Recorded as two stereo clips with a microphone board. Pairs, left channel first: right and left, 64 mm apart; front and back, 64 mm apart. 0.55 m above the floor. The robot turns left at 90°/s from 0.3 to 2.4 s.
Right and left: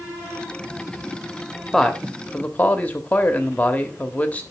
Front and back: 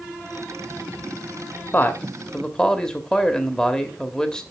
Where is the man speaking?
Straight ahead, 1.2 m; by 4.4 s 60° right, 1.2 m.